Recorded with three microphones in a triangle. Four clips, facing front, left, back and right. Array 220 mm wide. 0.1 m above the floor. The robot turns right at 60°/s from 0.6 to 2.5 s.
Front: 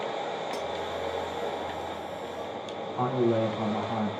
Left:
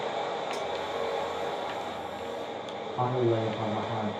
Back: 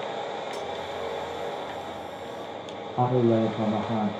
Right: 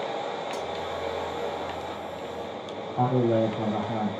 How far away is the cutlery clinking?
About 1.4 m.